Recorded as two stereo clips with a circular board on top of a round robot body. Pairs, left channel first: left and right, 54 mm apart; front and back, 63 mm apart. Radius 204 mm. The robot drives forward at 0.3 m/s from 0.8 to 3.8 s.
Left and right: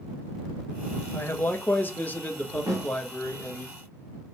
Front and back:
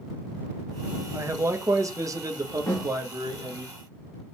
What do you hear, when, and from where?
1.1 s a man speaking: 140° left, 0.8 m; by 3.7 s 160° left, 1.4 m
2.7 s a snare drum: 70° right, 1.8 m